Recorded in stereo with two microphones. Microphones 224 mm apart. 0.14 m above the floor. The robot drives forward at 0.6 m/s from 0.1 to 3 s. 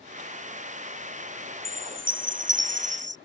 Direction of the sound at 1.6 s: 65° right (ahead or behind).